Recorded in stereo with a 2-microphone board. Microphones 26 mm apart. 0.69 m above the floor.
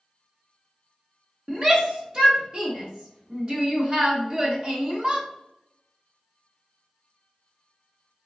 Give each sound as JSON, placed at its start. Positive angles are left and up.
{"t": 1.5, "sound": "a shout", "side_deg": -25, "distance_m": 0.9}